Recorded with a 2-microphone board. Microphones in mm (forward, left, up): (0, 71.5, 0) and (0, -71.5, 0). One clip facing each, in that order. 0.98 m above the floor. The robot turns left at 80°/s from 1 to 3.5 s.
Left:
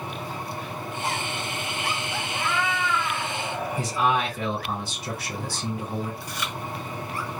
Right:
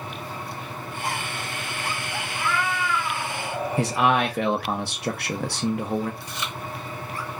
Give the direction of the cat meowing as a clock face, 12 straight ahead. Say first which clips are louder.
Right 1 dB; 10 o'clock.